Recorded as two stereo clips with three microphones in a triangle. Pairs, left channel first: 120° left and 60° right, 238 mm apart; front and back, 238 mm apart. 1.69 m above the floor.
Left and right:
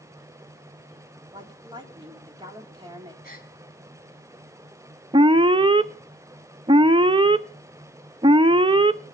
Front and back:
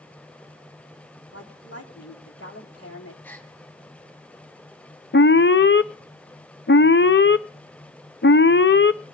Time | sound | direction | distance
1.3 | a woman speaking | 10° left | 3.5 m
3.2 | a gasp | 80° left | 2.5 m
5.1 | an alarm | straight ahead | 0.7 m